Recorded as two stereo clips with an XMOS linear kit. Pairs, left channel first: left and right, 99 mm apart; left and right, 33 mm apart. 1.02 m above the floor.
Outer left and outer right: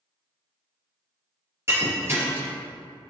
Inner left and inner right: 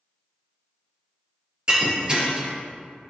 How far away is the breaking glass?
About 3 m.